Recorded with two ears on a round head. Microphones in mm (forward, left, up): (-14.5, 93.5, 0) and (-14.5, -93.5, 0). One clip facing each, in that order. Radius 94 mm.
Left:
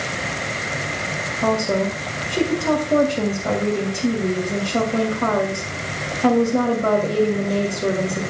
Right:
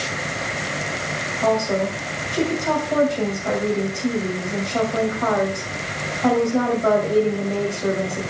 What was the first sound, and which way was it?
A woman speaking, 40° left (ahead or behind).